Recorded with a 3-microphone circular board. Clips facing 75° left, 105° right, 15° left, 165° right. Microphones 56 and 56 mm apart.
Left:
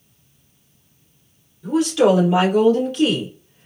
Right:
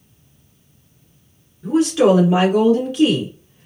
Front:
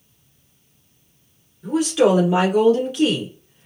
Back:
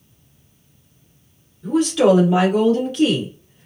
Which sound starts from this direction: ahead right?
A woman speaking, at 1.6 s.